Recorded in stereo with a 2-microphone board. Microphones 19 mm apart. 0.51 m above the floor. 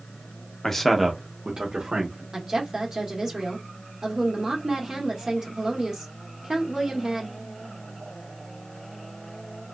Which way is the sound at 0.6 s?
25° left (ahead or behind).